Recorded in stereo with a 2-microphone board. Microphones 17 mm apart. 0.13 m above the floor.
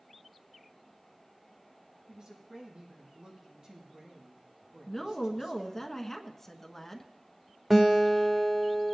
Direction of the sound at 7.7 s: 15° right (ahead or behind).